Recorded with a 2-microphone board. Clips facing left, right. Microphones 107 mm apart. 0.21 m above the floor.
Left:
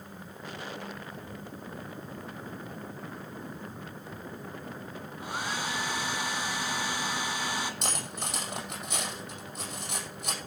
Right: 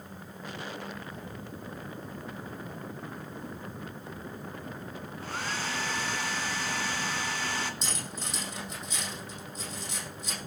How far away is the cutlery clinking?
About 5.5 m.